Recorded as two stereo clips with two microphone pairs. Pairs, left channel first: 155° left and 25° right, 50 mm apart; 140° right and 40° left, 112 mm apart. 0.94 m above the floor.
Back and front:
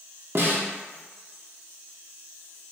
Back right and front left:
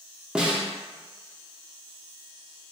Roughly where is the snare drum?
Ahead right.